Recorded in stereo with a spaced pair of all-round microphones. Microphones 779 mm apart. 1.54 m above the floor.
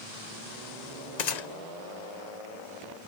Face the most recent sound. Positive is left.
turn(degrees=60)  # may be behind; listen again after turning